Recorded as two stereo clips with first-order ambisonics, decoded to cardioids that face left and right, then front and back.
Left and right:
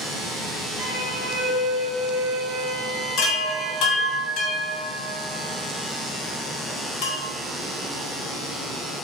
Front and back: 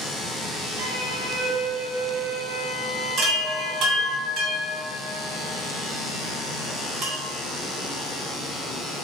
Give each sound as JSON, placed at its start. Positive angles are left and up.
{"t": 0.8, "sound": "a violin", "azimuth_deg": 170, "distance_m": 1.6}
{"t": 3.2, "sound": "a chime", "azimuth_deg": 130, "distance_m": 1.3}